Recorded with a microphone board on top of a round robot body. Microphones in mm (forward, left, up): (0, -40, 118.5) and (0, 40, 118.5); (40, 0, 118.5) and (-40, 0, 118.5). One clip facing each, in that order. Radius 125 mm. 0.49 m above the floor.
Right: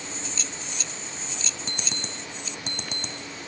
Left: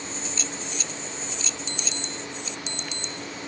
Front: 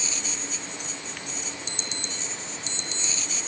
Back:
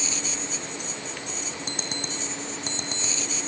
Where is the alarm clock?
135° right, 1.8 m.